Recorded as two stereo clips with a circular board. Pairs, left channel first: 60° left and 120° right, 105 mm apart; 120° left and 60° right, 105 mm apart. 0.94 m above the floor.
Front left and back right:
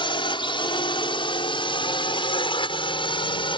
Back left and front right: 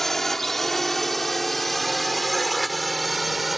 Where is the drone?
35° left; by 3.6 s 30° left.